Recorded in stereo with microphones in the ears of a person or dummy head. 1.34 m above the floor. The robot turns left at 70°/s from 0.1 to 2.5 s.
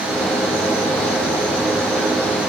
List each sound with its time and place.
Only background noise.